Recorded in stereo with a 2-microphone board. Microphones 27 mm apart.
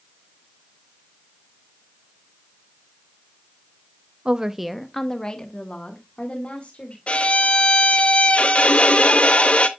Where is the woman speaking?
40° right (ahead or behind), 0.6 m; by 7.0 s 45° left (ahead or behind), 2.5 m.